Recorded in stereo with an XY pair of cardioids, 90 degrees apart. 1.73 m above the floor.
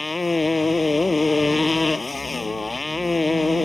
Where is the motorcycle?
20° left.